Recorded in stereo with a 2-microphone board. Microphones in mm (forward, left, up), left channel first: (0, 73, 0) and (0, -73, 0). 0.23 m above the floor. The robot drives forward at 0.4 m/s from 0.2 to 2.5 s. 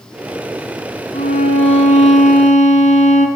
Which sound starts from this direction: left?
A violin, at 1.1 s.